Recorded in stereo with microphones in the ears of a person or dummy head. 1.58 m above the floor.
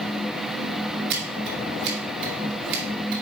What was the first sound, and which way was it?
Scissors, 55° right (ahead or behind).